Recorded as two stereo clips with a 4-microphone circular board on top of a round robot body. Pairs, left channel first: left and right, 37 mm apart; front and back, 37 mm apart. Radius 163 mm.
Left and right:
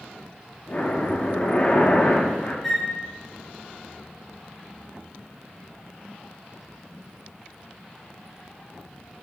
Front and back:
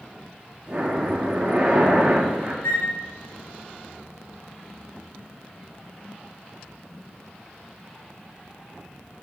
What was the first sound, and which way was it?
Breathing, 125° left.